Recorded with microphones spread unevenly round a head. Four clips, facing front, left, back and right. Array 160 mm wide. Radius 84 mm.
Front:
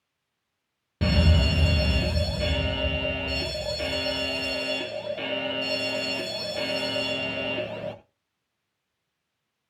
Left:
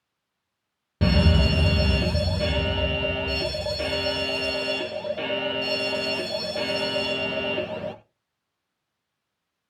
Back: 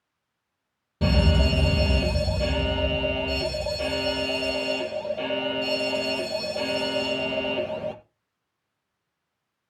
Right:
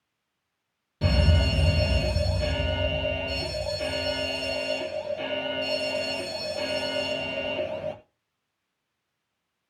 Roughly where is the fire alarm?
Left.